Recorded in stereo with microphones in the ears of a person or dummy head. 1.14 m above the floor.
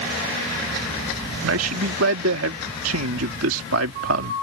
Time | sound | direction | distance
1.4 | a man speaking | 80° right | ?